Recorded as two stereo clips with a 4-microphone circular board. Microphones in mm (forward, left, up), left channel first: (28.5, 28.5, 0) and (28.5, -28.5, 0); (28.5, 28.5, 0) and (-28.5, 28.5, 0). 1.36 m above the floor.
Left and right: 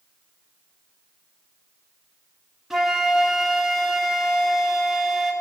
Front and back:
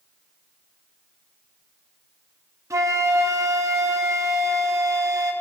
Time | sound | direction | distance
2.7 | a flute | 175° right | 0.8 m